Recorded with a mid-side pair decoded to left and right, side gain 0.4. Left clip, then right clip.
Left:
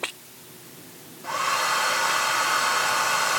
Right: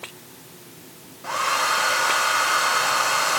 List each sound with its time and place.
1.2 s a hair dryer: 30° right, 0.9 m